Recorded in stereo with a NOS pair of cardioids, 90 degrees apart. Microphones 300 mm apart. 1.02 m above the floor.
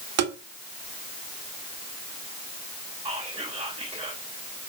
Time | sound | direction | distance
0.2 | tapping | 60° right | 1.7 m
3.0 | whispering | 10° right | 2 m